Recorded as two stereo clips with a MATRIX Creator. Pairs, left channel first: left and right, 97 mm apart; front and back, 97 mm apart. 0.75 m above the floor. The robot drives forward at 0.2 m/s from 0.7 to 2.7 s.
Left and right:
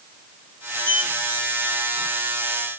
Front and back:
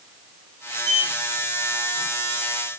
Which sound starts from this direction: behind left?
A sliding door, at 0.8 s.